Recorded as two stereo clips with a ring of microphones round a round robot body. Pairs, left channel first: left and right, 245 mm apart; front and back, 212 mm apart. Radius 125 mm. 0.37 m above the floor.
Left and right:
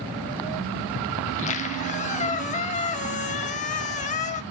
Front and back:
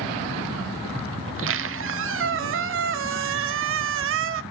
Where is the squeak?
155° left, 0.6 m.